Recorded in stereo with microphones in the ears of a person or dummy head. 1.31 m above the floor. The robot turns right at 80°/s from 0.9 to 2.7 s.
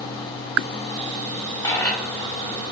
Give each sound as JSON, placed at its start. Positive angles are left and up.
{"t": 1.6, "sound": "a dropped coin", "side_deg": 20, "distance_m": 2.5}